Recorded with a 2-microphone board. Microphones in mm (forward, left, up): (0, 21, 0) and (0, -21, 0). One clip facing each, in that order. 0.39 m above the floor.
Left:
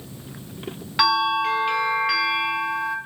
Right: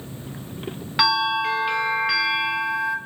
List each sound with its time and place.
1.0 s a bell: 5° right (ahead or behind), 1.1 m